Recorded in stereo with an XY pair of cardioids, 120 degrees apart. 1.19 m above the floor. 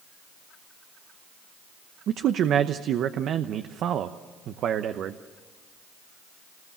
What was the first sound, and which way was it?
A man speaking, 60° right.